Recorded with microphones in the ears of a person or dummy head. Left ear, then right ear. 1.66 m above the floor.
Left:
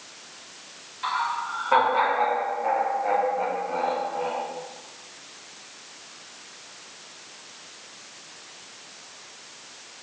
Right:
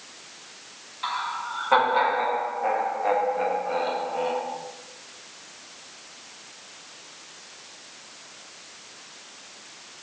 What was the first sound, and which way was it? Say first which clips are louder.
Laughter: left 2 dB; 5° right (ahead or behind).